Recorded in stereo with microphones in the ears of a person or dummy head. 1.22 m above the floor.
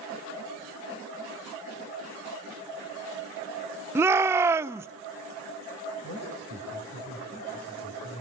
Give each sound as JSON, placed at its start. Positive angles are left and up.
{"t": 4.0, "sound": "a shout", "side_deg": -15, "distance_m": 0.5}
{"t": 6.0, "sound": "a man speaking", "side_deg": 45, "distance_m": 6.0}